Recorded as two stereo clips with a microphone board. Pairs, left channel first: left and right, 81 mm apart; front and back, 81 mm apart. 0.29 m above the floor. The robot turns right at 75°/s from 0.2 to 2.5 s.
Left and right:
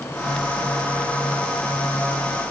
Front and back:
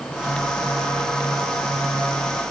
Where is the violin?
No violin in this recording.